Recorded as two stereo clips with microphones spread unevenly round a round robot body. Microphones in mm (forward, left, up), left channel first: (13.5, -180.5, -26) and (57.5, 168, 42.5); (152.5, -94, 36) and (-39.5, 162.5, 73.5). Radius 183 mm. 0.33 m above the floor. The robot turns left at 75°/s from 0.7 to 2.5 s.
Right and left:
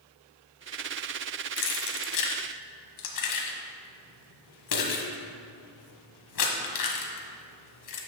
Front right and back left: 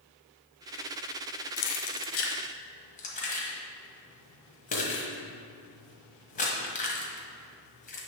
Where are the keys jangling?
45° right, 1.2 m; by 8.0 s 115° right, 1.2 m.